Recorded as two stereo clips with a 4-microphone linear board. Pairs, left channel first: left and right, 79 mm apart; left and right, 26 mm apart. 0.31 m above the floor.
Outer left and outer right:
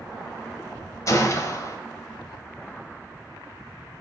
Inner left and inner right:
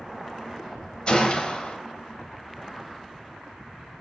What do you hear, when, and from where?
1.1 s a gunshot: 45° left (ahead or behind), 1.4 m